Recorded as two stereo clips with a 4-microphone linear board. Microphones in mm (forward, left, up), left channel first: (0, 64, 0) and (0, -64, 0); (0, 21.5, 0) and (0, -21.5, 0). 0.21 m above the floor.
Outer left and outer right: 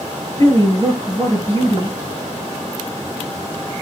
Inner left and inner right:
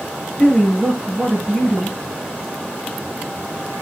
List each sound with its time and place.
0.4 s a woman speaking: 20° left (ahead or behind), 4.5 m